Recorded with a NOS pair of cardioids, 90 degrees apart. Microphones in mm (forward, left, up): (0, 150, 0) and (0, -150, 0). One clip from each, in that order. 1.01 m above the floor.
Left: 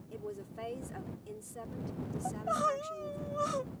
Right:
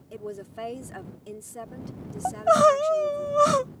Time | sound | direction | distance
0.1 | a woman speaking | 45° right | ?
2.2 | crying | 65° right | ?